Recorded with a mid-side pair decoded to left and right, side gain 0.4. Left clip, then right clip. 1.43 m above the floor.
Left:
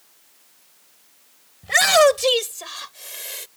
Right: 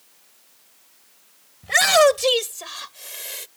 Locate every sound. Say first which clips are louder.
1.6 s a shout: left 1 dB; 5° left; by 3.5 s straight ahead